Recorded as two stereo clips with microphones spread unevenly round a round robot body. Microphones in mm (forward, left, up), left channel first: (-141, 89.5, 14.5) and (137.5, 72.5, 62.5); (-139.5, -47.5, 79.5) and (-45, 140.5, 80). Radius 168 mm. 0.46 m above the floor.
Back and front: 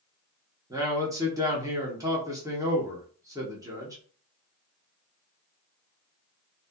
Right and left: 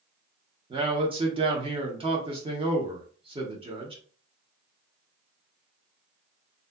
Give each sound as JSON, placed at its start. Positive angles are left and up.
{"t": 0.7, "sound": "a man speaking", "azimuth_deg": 80, "distance_m": 0.8}